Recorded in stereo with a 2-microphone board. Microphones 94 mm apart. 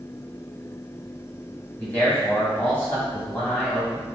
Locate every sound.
1.8 s a man speaking: 20° left (ahead or behind), 2 m